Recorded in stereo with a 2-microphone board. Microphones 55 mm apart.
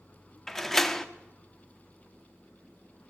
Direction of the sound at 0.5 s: 10° left (ahead or behind).